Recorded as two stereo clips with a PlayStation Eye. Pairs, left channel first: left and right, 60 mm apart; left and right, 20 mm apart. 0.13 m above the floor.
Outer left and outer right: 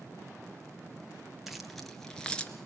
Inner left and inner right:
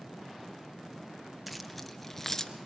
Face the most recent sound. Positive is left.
turn(degrees=15)  # may be behind; listen again after turning